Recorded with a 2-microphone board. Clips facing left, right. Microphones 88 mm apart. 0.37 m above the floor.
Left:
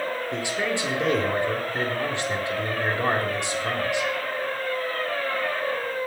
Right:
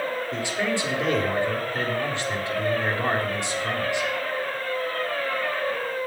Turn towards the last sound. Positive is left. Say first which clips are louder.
# right 1 dB
turn(degrees=20)  # may be behind; listen again after turning